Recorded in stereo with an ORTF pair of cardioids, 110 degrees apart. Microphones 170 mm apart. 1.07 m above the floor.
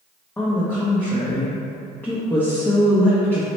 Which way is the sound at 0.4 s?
10° left.